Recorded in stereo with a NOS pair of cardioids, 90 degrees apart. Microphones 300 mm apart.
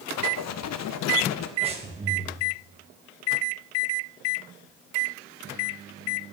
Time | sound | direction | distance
0.2 | writing | 65° left | 0.8 m
1.6 | breathing | 20° right | 1.9 m